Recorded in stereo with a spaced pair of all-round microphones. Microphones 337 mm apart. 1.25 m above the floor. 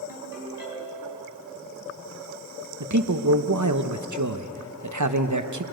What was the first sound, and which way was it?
A ringtone, 80° left.